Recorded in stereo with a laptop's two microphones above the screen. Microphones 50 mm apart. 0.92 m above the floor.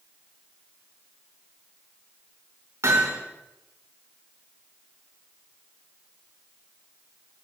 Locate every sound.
2.8 s hammering: 80° right, 6 m